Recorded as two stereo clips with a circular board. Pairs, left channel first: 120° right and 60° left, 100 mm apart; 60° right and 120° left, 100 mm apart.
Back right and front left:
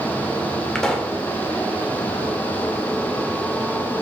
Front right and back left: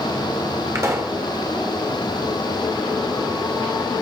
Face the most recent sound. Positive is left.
turn(degrees=160)